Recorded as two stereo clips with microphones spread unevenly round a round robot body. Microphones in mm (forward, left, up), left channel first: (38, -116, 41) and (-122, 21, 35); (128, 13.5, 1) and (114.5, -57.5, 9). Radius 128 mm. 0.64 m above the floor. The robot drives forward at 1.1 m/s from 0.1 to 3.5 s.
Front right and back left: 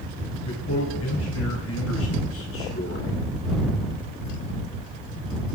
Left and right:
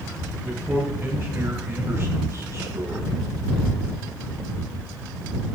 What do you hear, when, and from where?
0.5 s a man speaking: 45° right, 9.5 m; by 3.2 s 60° right, 8 m